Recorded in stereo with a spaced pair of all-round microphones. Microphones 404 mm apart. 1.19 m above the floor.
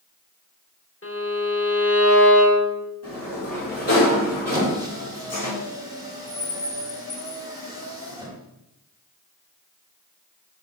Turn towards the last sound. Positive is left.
turn(degrees=-10)  # may be behind; listen again after turning